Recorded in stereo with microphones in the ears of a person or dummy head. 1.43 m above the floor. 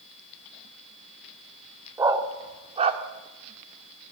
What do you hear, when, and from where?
2.0 s a dog barking: 15° right (ahead or behind), 1.6 m; by 3.0 s 35° right (ahead or behind), 1.7 m